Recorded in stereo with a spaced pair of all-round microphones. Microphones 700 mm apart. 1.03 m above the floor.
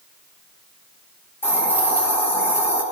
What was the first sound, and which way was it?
A hiss, 5° left (ahead or behind).